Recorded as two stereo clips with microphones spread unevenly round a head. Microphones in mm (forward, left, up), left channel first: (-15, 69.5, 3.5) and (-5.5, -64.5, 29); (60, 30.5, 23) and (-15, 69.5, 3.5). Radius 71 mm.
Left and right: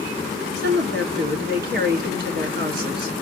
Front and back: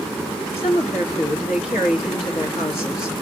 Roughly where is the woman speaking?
Ahead right.